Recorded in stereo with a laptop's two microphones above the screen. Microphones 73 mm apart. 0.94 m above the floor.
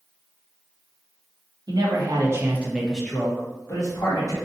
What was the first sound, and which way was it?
A man speaking, 65° right (ahead or behind).